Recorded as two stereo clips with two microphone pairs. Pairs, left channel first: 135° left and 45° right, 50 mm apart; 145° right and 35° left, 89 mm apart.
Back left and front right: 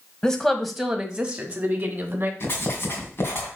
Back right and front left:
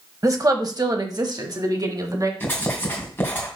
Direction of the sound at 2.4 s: 150° left.